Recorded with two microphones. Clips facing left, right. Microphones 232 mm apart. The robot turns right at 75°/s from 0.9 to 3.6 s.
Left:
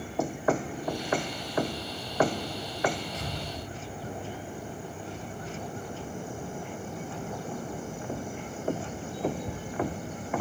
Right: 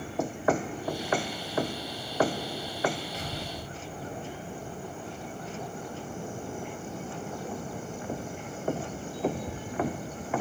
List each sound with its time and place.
3.1 s an explosion: 135° left, 3.5 m; by 4.6 s 170° left, 3.5 m